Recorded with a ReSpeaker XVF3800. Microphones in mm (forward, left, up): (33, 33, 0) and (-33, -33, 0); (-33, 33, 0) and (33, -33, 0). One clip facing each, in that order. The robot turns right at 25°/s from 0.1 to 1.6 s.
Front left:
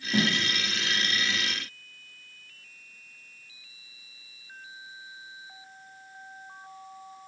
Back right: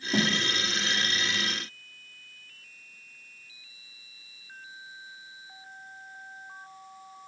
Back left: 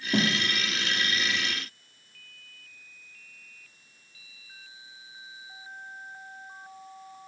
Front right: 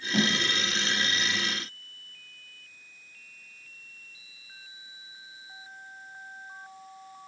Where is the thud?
155° left, 1.1 m; by 0.3 s 160° left, 1.1 m.